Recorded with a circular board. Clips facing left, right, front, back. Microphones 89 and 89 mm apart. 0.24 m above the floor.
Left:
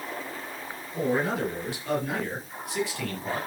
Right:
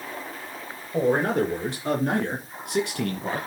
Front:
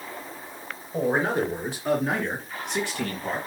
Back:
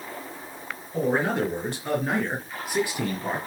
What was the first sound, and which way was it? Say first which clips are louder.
A man speaking: right 5 dB, even; 70° right.